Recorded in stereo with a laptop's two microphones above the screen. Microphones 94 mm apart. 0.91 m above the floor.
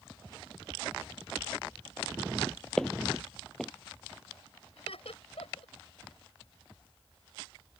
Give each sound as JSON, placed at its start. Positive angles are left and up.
{"t": 2.8, "sound": "footsteps", "side_deg": 5}
{"t": 4.8, "sound": "laughter", "side_deg": 85}